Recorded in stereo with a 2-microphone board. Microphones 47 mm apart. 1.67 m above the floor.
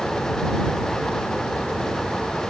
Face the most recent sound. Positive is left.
No sound to turn to.